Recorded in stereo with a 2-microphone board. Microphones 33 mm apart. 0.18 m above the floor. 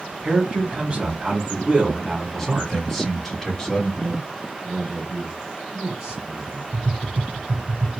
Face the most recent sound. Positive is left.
turn(degrees=-45)  # may be behind; listen again after turning